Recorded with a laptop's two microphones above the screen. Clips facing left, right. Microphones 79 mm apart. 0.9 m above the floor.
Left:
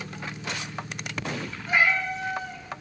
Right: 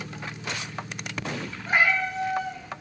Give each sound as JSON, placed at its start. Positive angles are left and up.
{"t": 1.7, "sound": "a cat meowing", "side_deg": -45, "distance_m": 1.2}